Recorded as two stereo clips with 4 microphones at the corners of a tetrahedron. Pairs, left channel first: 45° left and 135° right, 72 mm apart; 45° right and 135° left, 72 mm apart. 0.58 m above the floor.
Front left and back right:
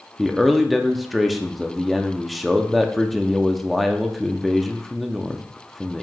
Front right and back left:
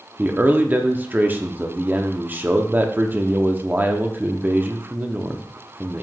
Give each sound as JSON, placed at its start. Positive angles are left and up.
{"t": 0.2, "sound": "a man speaking", "azimuth_deg": 135, "distance_m": 0.8}